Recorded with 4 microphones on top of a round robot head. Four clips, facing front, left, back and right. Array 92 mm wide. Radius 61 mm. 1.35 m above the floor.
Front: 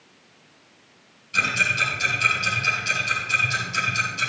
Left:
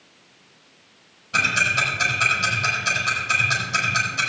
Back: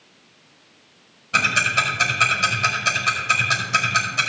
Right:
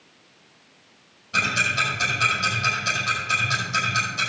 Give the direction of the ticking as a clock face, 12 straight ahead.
6 o'clock.